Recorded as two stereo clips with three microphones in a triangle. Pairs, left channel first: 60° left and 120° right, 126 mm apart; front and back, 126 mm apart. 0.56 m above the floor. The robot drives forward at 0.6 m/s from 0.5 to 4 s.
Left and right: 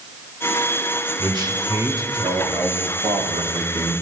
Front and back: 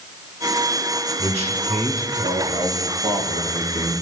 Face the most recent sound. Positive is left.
turn(degrees=-175)